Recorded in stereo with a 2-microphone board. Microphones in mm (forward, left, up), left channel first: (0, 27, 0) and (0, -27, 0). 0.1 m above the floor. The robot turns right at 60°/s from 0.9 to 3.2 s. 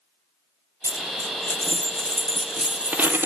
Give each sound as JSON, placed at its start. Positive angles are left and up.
{"t": 0.8, "sound": "a dropped coin", "azimuth_deg": 90, "distance_m": 1.4}